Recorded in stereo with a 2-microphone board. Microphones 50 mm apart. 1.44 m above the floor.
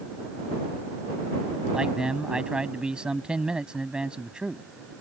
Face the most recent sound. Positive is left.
turn(degrees=-20)  # may be behind; listen again after turning